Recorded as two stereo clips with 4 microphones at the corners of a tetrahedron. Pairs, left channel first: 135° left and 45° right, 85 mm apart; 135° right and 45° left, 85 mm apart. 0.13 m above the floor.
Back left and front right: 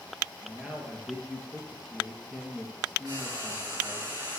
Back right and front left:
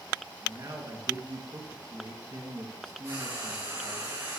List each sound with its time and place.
0.4 s a man speaking: 35° left, 2.5 m
3.0 s frying: 5° right, 6 m